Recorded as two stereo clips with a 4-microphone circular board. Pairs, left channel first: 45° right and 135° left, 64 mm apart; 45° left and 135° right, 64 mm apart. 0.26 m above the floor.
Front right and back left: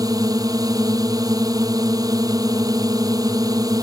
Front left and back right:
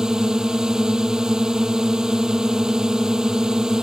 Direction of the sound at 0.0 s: 145° left.